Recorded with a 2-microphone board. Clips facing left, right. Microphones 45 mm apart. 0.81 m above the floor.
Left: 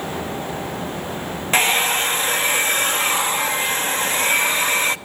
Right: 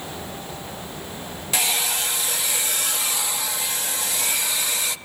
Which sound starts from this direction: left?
A hair dryer, at 1.5 s.